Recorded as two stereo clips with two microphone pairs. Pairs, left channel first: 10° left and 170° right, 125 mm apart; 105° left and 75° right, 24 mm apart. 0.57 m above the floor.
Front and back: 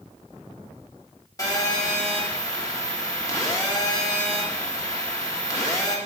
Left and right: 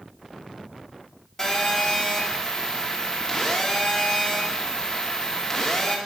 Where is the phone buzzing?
50° left, 1.2 m.